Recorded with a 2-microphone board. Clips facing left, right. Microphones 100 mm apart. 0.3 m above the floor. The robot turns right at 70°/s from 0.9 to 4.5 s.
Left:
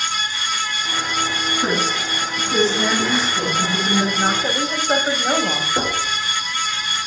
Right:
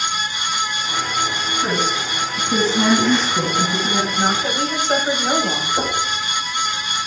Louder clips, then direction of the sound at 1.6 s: Right 1 dB; 165° left.